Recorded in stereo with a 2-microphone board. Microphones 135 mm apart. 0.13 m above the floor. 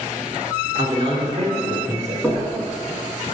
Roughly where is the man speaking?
Right.